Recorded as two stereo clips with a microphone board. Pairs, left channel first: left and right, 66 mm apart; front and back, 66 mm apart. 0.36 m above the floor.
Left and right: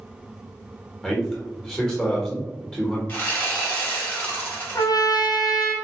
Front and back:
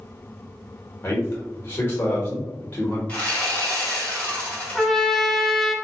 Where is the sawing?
55° left, 1.7 m.